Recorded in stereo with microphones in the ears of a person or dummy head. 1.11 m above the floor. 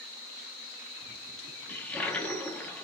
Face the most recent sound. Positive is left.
turn(degrees=10)  # may be behind; listen again after turning